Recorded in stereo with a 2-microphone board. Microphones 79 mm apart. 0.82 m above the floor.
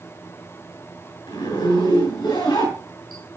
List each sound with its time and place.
1.3 s a zipper: 75° left (ahead or behind), 7.5 m